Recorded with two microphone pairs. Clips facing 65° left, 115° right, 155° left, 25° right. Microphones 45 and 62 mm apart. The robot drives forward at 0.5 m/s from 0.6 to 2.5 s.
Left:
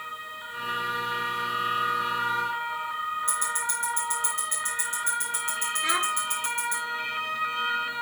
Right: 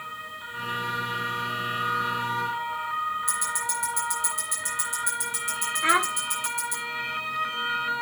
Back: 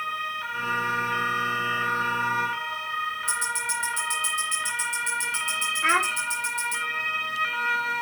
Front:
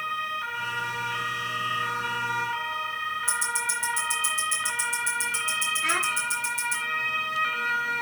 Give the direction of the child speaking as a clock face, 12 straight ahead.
5 o'clock.